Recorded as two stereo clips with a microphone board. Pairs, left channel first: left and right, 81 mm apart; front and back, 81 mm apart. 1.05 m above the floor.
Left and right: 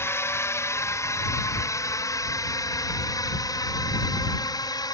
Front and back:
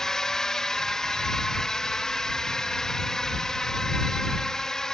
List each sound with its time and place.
0.0 s a drone: 75° left; by 5.0 s 80° left